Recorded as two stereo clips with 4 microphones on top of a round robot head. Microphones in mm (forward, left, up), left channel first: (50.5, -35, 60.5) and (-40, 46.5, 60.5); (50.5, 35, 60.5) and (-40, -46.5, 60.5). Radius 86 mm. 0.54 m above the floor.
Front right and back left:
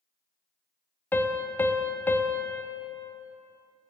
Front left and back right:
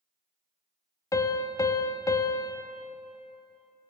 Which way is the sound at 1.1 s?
15° left.